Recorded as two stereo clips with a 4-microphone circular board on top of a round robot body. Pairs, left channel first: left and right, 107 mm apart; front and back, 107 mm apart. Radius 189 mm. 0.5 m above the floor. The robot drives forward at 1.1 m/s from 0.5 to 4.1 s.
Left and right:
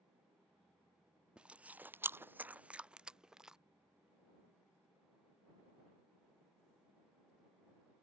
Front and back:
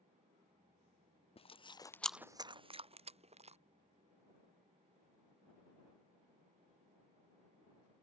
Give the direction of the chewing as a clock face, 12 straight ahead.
12 o'clock.